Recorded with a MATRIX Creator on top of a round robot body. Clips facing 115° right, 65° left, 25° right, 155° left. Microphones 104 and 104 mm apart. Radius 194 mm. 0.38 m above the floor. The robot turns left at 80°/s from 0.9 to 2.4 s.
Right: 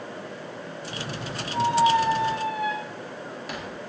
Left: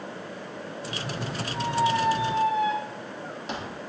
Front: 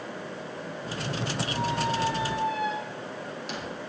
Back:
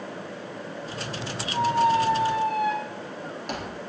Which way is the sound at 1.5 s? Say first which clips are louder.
Right 5 dB, back 9 dB; 160° right.